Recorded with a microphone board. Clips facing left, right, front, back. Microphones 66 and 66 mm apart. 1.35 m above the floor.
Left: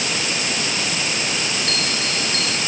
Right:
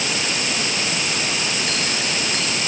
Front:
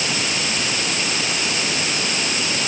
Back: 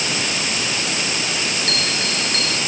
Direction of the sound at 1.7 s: 170° right.